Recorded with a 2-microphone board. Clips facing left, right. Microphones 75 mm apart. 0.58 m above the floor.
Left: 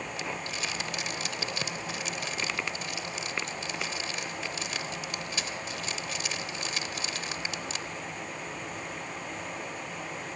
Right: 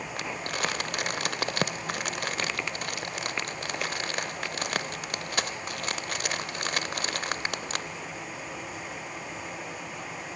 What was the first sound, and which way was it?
Crumpling, 55° right (ahead or behind).